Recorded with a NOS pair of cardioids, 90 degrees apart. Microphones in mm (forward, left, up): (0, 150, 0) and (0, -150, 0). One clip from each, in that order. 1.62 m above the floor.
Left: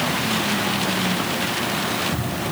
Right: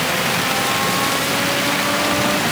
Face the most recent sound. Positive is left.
No sound to turn to.